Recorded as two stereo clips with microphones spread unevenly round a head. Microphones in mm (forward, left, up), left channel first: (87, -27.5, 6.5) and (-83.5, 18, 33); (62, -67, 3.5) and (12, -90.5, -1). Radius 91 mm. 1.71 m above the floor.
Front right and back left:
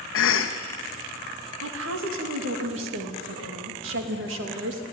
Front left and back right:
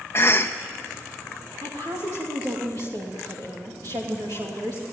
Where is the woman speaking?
145° left, 3 m.